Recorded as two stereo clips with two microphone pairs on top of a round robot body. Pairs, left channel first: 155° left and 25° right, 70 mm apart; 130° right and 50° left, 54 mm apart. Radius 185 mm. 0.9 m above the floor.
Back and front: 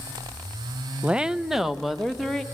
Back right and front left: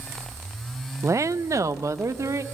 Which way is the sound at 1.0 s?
35° left.